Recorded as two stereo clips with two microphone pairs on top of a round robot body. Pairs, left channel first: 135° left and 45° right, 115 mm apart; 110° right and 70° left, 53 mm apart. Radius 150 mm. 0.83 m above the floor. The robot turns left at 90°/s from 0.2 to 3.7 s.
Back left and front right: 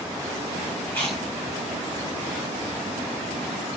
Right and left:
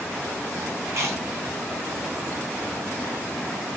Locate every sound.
0.9 s chewing: 70° left, 1.4 m; by 1.2 s 40° left, 1.4 m